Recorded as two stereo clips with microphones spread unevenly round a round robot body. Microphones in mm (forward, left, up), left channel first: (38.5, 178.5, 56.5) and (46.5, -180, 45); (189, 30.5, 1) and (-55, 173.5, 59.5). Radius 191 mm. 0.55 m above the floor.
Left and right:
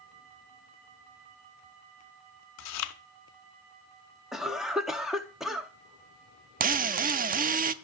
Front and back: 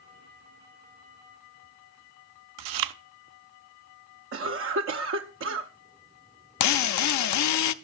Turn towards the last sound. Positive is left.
turn(degrees=-20)